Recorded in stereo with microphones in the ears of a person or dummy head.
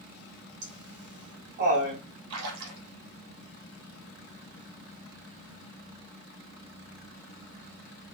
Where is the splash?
75° right (ahead or behind), 1.1 m.